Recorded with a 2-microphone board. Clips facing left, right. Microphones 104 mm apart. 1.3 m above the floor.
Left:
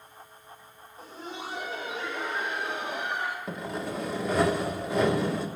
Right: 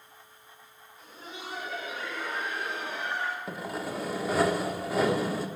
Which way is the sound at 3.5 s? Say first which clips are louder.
Left 1 dB; centre (ahead or behind).